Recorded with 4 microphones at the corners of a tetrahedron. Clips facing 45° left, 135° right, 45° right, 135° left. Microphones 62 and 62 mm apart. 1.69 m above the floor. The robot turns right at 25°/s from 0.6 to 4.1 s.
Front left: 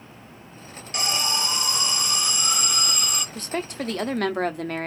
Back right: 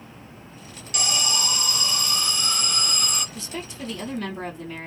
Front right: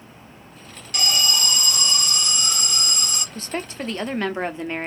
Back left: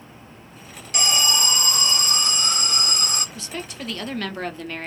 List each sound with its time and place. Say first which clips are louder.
0.9 s an alarm: front left 1 dB, back left 1 dB; 80° left, 0.7 m; by 3.2 s 135° left, 0.7 m
3.4 s a woman speaking: front left 5 dB, front right 4 dB; 5° left, 0.5 m; by 4.9 s 20° left, 0.5 m